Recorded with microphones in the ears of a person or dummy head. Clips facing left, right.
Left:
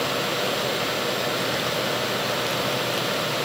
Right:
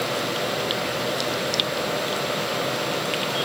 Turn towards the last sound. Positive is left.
No sound to turn to.